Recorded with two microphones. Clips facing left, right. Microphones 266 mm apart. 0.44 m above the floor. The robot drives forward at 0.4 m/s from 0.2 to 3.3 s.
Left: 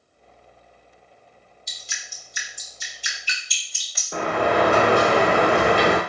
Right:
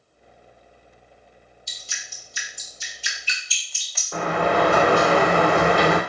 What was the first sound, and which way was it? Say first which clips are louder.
Dripping: even; 20° left (ahead or behind).